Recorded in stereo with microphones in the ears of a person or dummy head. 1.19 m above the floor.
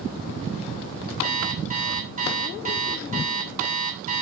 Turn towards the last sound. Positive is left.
turn(degrees=-45)  # may be behind; listen again after turning